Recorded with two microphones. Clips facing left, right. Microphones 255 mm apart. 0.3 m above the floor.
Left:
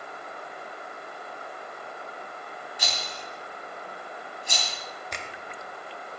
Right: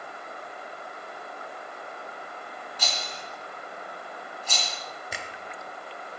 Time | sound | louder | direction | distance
2.8 | a rattle | right 1 dB | 15° left (ahead or behind) | 2.5 m
5.1 | a finger snap | even | 5° right (ahead or behind) | 0.8 m